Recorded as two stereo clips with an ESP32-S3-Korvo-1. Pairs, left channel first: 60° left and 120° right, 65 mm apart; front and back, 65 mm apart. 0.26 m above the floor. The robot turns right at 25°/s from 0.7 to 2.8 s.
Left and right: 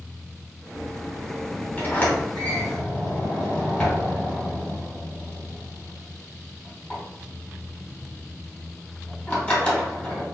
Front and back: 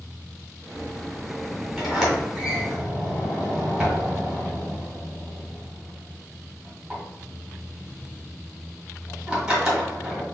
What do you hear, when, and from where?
1.8 s a sliding door: 85° left, 1.8 m; by 10.2 s 110° left, 1.8 m